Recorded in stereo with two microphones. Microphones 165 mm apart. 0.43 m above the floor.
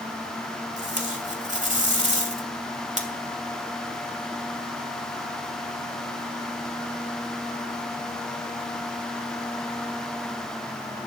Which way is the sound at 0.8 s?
50° right (ahead or behind).